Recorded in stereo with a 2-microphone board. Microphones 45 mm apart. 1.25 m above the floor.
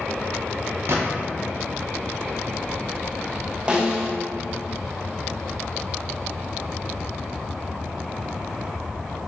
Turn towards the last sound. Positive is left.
turn(degrees=-20)  # may be behind; listen again after turning